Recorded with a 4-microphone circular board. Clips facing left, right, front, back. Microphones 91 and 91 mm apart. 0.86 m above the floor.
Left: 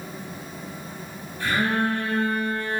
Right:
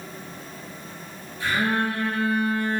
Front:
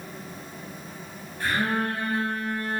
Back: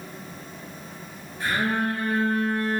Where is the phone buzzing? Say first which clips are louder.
Even, back 1 dB; 95° left, 1.8 m.